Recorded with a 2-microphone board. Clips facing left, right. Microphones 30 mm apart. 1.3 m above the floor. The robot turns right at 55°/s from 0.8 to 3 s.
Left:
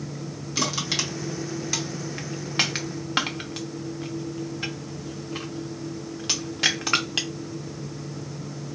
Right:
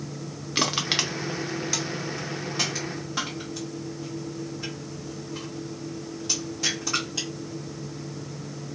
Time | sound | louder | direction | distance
0.6 | crushing | right 2 dB | 35° right (ahead or behind) | 0.7 m